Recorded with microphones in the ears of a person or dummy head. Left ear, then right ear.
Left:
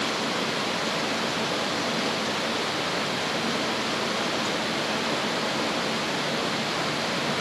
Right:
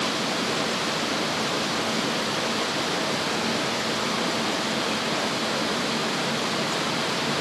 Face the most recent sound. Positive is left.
No sound to turn to.